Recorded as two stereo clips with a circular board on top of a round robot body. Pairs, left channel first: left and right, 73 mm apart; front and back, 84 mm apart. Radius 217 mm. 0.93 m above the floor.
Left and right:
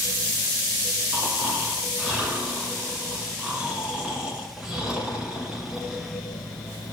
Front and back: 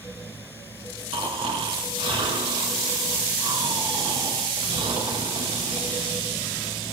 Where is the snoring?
165° right, 1.8 m.